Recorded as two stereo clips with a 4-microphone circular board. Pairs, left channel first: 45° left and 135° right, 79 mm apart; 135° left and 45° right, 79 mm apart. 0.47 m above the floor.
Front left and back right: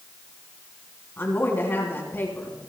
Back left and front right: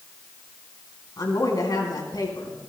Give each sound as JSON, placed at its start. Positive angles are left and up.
{"t": 1.2, "sound": "a woman speaking", "azimuth_deg": 105, "distance_m": 3.0}